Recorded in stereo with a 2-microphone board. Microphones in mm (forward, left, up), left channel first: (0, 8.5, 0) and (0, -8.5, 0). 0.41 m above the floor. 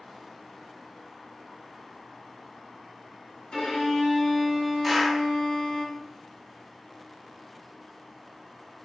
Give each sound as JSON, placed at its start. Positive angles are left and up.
{"t": 3.5, "sound": "a violin", "side_deg": 70, "distance_m": 1.9}
{"t": 4.8, "sound": "a clap", "side_deg": 0, "distance_m": 1.6}